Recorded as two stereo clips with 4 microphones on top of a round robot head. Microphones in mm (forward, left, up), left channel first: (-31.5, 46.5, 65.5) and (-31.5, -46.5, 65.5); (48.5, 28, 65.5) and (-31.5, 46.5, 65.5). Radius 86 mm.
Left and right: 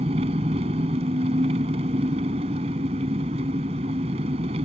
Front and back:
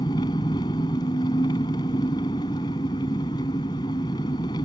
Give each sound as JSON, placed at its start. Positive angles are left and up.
{"t": 0.0, "sound": "an engine running", "azimuth_deg": -65}